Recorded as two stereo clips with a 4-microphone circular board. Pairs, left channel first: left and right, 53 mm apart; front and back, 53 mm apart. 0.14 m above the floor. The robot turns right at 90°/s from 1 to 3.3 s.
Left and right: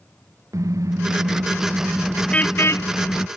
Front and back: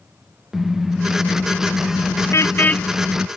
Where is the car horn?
95° right; by 3.3 s 105° left.